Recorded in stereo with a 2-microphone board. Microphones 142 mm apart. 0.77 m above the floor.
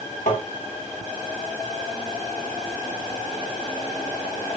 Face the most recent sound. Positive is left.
turn(degrees=60)  # may be behind; listen again after turning